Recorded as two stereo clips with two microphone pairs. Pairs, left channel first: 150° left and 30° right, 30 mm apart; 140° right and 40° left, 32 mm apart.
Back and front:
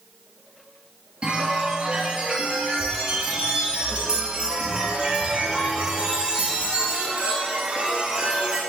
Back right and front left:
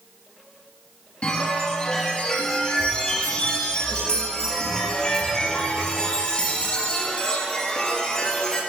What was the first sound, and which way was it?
A chime, 90° right.